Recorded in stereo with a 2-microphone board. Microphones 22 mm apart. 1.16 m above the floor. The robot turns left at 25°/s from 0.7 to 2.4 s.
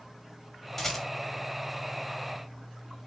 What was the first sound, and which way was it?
A rattle, 5° left (ahead or behind).